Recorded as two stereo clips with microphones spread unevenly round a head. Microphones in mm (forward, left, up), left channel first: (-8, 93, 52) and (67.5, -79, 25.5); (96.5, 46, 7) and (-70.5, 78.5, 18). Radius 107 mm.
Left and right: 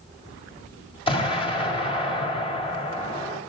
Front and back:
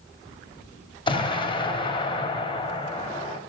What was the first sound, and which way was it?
An explosion, 50° left.